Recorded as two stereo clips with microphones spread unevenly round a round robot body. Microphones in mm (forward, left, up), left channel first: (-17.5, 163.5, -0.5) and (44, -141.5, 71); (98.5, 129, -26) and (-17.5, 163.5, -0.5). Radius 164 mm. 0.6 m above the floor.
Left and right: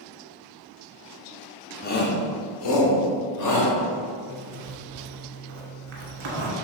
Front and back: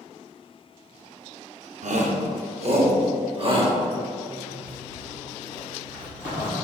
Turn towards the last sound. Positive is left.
turn(degrees=-120)